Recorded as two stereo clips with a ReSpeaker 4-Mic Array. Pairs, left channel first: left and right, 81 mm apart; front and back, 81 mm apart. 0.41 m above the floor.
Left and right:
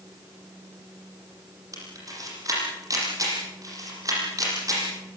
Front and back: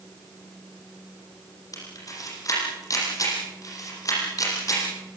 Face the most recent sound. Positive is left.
turn(degrees=-45)